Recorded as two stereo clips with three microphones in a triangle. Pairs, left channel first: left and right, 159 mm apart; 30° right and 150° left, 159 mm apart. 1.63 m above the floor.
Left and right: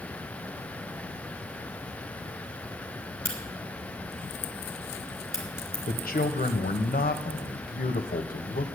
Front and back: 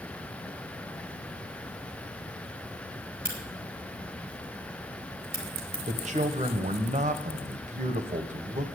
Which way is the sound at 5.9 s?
110° left.